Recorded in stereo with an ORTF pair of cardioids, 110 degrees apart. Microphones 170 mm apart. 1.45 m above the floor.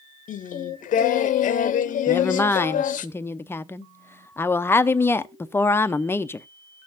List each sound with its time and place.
0.3 s singing: 55° left, 0.8 m
2.1 s a woman speaking: 15° left, 0.6 m